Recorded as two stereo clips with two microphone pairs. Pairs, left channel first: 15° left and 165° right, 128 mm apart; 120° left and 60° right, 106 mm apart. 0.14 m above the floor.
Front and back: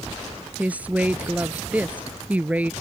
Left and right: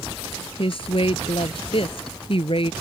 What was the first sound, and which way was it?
A woman speaking, 115° left.